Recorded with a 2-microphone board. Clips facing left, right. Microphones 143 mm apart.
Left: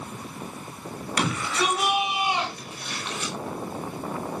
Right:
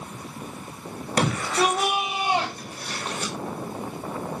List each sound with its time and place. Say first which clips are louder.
1.2 s a shout: right 4 dB; 40° right (ahead or behind), 5.5 m